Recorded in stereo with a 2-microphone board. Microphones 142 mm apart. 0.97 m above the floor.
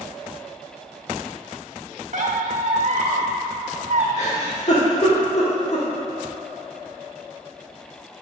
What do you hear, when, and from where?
2.1 s a squeak: 65° right (ahead or behind), 1.1 m
4.2 s a giggle: 50° left (ahead or behind), 1.9 m